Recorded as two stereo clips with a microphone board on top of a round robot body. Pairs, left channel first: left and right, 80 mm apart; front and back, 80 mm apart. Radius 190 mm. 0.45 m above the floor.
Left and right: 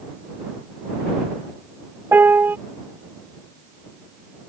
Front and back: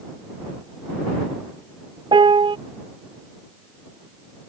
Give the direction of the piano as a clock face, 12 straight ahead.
5 o'clock.